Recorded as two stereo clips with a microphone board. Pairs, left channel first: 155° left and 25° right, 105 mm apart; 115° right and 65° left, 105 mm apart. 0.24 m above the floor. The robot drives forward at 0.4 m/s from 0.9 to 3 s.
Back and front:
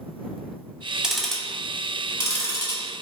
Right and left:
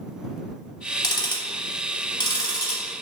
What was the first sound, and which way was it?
Ticking, 100° right.